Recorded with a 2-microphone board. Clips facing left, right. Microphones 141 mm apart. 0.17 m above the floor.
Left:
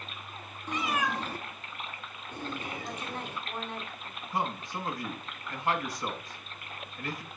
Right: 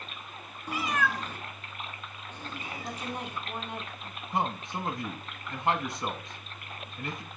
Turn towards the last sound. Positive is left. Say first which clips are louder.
# right 2 dB
turn(degrees=-25)  # may be behind; listen again after turning